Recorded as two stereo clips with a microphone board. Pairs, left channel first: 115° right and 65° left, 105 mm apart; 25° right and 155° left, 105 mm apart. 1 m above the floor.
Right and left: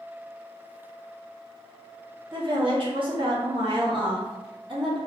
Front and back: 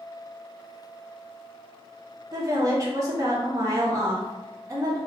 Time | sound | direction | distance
2.3 | a woman speaking | 100° left | 0.8 m